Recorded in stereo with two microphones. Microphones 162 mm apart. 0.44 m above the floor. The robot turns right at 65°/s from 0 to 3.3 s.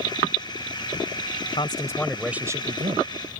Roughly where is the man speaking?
Behind left.